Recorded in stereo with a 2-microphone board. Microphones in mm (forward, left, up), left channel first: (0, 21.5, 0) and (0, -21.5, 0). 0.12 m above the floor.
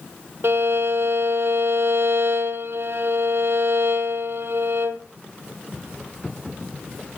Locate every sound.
0.4 s a violin: 60° right (ahead or behind), 1.0 m